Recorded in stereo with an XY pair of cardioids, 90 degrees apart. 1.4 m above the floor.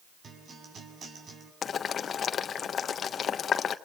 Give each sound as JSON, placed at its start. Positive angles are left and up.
{"t": 0.2, "sound": "a guitar", "azimuth_deg": -55, "distance_m": 6.5}
{"t": 1.6, "sound": "boiling", "azimuth_deg": 60, "distance_m": 1.3}